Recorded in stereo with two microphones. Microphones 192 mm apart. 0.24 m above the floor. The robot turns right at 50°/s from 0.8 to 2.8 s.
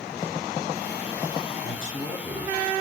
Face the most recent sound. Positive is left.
turn(degrees=155)